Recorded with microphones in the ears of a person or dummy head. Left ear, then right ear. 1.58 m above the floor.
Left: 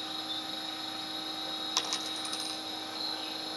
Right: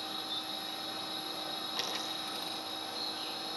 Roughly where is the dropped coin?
Left.